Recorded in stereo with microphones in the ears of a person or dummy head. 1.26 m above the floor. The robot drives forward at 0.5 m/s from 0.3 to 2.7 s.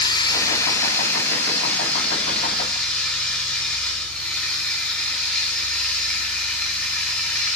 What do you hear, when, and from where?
0.0 s running water: 25° left (ahead or behind), 0.8 m; by 7.6 s 10° left (ahead or behind), 1.9 m